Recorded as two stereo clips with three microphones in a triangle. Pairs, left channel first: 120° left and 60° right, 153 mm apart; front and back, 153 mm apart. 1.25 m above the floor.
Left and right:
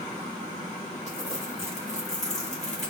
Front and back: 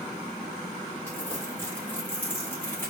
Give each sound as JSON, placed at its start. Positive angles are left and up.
{"t": 1.1, "sound": "crumpling", "azimuth_deg": 75, "distance_m": 1.5}